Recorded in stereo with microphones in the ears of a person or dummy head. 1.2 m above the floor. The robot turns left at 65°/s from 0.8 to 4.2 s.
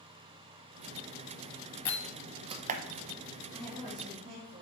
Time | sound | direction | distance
1.9 | a door slam | 15° left (ahead or behind) | 0.6 m
3.5 | a woman speaking | 5° left | 2.5 m